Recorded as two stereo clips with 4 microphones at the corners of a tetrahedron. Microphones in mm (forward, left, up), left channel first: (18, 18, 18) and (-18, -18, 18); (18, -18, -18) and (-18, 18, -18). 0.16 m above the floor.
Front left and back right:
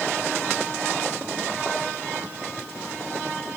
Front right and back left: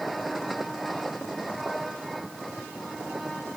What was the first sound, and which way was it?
Only background noise.